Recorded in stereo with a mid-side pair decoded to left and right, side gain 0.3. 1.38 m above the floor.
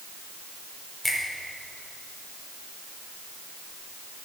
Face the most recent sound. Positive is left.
turn(degrees=5)